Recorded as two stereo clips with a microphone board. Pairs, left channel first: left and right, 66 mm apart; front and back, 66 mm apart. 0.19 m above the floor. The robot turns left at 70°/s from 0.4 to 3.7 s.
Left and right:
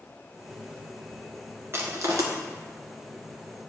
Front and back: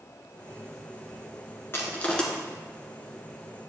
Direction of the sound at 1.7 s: 45° right.